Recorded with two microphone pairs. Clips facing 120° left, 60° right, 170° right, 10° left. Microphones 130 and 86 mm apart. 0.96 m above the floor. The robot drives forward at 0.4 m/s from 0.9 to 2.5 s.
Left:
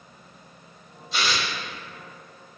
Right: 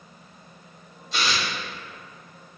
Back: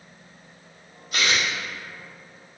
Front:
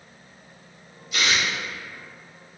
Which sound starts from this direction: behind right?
Tearing paper, at 1.1 s.